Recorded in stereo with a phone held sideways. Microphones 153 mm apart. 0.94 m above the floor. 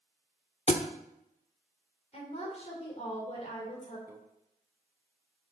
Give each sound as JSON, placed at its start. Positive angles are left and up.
{"t": 0.7, "sound": "a thud", "side_deg": 45, "distance_m": 0.7}
{"t": 2.1, "sound": "a woman speaking", "side_deg": 45, "distance_m": 3.5}
{"t": 4.1, "sound": "a microwave", "side_deg": -20, "distance_m": 0.8}